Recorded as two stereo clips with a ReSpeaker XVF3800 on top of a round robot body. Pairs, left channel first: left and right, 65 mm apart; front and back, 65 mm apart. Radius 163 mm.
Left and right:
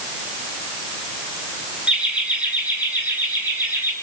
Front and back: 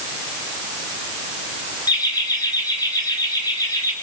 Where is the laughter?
15° right, 6.5 m; by 3.9 s 30° right, 7.5 m.